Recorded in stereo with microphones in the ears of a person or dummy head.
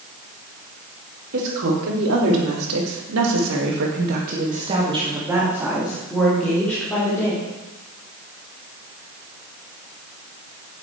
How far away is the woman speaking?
About 3.5 m.